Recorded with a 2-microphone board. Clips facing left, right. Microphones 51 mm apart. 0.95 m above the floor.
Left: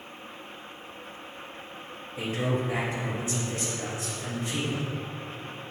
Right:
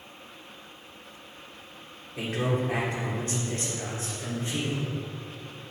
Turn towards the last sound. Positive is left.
turn(degrees=-30)  # may be behind; listen again after turning